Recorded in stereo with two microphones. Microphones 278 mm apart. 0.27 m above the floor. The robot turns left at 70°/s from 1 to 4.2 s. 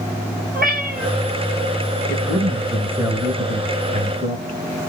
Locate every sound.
0.5 s a cat meowing: 35° right (ahead or behind), 1.1 m; by 1.1 s 25° right (ahead or behind), 1.1 m
2.1 s a man speaking: 15° left (ahead or behind), 1.0 m; by 4.6 s 25° right (ahead or behind), 1.0 m